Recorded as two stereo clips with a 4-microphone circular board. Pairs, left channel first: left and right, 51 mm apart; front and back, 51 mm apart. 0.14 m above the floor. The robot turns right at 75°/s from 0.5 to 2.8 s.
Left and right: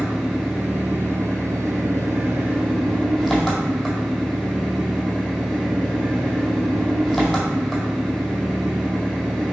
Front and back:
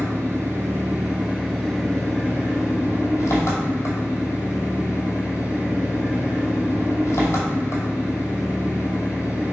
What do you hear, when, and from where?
0.0 s an engine running: 175° right, 1.9 m; by 9.5 s 5° right, 1.9 m